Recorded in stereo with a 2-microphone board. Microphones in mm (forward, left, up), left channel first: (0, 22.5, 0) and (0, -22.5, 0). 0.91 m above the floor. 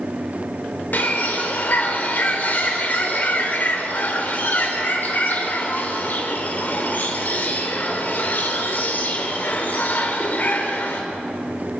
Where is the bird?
50° left (ahead or behind), 4 m.